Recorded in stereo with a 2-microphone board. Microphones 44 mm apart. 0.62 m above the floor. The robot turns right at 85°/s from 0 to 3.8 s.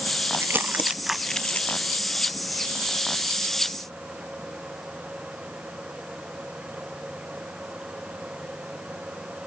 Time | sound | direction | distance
0.3 | crumpling | 75° right (ahead or behind) | ?